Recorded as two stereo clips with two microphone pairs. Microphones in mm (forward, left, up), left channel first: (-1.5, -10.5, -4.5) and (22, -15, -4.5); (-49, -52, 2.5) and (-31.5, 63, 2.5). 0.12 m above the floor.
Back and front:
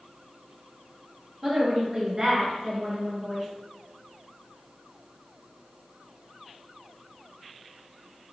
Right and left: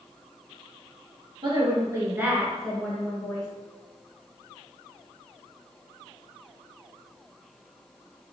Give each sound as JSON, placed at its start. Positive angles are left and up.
{"t": 1.4, "sound": "a woman speaking", "azimuth_deg": 50, "distance_m": 1.9}